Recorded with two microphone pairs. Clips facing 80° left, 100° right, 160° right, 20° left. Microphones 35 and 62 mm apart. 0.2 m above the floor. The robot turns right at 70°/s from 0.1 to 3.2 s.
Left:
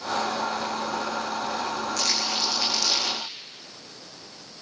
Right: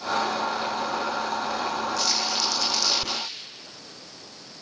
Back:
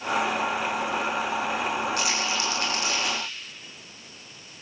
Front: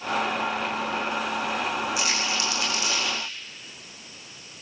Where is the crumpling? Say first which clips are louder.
Right 1 dB, even; 105° left, 8.5 m; by 3.2 s 170° right, 8.5 m.